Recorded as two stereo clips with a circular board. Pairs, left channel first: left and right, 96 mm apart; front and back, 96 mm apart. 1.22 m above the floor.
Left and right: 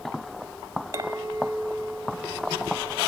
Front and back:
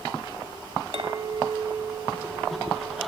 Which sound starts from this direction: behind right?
A clink, at 0.9 s.